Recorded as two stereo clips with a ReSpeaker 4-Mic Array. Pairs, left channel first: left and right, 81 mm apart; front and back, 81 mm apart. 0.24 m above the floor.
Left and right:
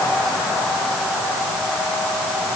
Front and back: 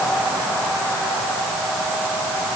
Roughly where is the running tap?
I don't hear a running tap.